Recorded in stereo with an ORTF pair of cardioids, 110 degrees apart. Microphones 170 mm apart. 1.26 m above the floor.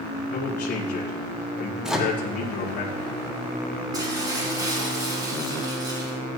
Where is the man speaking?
60° left, 2.5 m.